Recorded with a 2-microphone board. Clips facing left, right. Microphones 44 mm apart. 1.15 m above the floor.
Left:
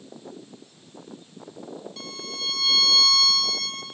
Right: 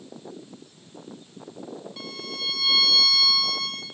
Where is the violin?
10° right (ahead or behind), 2.5 m.